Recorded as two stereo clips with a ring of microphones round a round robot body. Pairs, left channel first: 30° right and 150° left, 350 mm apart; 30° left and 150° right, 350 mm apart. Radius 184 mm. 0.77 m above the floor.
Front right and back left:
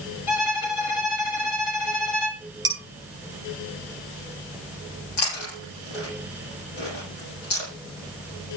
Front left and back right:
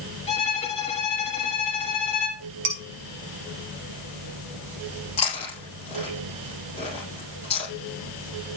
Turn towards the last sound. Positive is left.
turn(degrees=-45)